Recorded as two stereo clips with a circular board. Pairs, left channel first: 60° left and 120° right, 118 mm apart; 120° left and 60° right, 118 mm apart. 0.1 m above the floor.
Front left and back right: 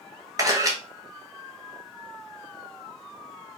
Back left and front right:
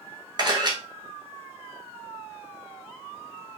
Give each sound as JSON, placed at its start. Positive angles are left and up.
{"t": 0.4, "sound": "a camera shutter", "azimuth_deg": -80, "distance_m": 0.9}